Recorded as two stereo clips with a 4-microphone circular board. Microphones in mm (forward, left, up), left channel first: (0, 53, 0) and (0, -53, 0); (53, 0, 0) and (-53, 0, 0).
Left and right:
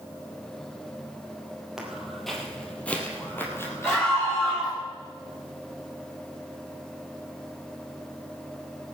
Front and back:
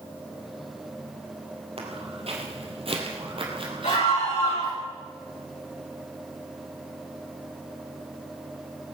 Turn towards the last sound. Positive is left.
turn(degrees=5)